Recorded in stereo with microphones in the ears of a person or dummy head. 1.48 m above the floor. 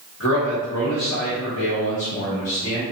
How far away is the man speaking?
About 1.2 m.